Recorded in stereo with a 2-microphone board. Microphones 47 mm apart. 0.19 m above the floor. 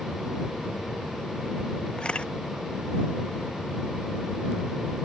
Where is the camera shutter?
20° left (ahead or behind).